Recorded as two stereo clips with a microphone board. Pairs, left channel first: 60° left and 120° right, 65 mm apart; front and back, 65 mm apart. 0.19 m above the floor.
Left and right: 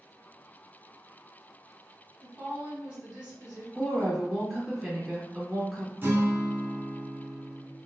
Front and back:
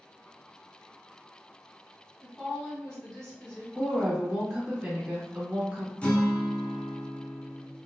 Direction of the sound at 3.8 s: 170° left.